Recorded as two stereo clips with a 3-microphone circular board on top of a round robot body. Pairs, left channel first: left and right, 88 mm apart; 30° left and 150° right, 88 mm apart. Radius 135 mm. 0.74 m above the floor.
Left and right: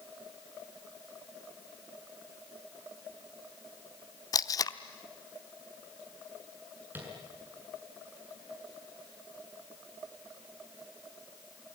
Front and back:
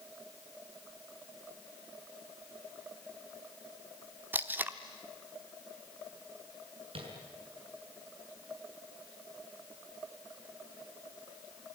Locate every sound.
4.3 s tape being pulled: 140° left, 0.8 m
7.0 s tapping: 160° right, 6.5 m